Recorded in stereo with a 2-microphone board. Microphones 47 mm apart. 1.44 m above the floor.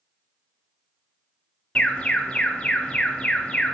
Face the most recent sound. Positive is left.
turn(degrees=25)  # may be behind; listen again after turning